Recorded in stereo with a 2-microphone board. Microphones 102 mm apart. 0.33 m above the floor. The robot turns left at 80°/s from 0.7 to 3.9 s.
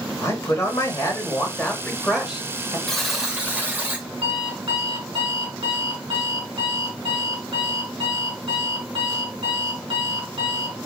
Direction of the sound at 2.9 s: 5° left (ahead or behind).